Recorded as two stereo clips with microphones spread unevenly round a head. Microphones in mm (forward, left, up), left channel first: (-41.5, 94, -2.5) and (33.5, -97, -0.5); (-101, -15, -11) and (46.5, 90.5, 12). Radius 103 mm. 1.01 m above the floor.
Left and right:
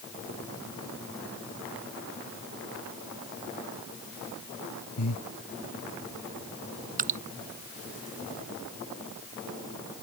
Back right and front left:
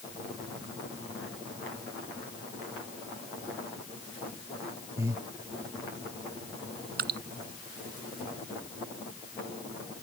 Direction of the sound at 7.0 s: 15° right.